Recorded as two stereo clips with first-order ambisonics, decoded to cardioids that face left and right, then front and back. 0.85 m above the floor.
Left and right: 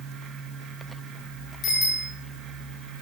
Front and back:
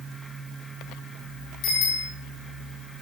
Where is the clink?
I don't hear a clink.